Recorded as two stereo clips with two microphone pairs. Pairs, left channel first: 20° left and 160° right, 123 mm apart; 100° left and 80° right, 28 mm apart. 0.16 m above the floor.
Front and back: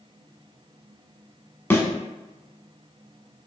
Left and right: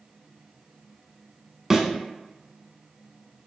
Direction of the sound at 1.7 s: 30° right.